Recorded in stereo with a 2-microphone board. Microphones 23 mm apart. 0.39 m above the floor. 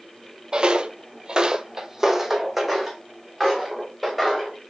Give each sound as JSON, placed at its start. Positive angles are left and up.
{"t": 0.5, "sound": "footsteps", "side_deg": -40, "distance_m": 0.5}